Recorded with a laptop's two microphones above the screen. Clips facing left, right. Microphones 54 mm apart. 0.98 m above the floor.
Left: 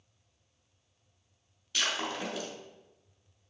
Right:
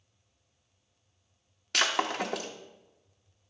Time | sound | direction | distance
1.7 | breaking glass | 65° right (ahead or behind) | 0.8 m